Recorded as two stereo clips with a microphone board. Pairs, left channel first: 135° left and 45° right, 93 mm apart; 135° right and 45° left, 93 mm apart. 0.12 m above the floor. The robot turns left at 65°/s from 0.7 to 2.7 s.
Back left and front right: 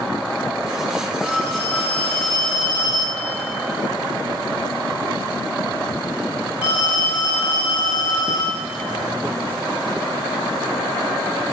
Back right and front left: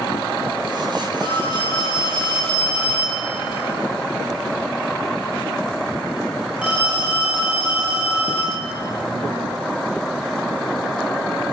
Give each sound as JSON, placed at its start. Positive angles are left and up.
{"t": 1.2, "sound": "a phone ringing", "azimuth_deg": -140, "distance_m": 7.5}